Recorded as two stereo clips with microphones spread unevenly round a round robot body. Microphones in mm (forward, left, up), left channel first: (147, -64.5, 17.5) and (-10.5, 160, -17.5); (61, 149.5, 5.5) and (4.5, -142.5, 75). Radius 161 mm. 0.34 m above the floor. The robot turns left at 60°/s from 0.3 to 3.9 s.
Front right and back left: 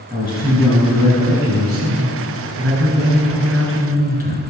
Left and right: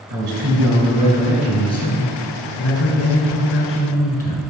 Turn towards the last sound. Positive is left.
turn(degrees=10)